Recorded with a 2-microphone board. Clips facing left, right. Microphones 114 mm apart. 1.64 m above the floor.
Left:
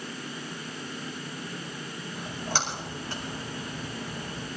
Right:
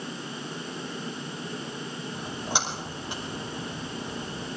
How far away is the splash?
About 5 m.